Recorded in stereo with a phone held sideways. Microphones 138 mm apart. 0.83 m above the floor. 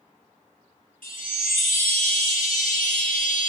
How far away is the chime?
About 0.6 m.